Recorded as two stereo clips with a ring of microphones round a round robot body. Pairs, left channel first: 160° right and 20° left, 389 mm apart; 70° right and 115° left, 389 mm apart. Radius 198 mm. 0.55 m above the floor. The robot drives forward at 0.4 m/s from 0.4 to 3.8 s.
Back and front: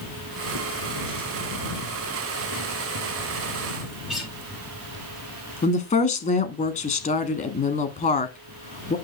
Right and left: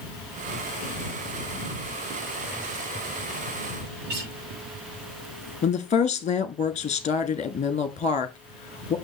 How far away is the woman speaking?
About 1.1 m.